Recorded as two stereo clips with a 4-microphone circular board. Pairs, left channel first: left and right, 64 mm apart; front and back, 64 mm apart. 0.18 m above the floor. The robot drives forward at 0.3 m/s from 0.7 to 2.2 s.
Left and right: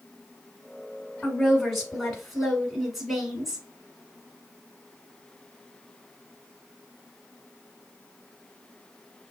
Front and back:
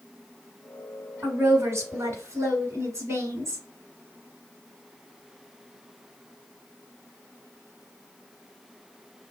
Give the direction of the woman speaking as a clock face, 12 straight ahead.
6 o'clock.